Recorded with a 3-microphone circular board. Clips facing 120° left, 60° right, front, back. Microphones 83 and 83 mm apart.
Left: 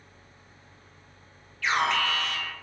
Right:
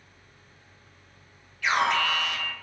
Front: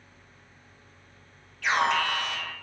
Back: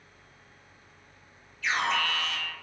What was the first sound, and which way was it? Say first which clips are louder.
An alarm: right 1 dB, front 4 dB; 10° left.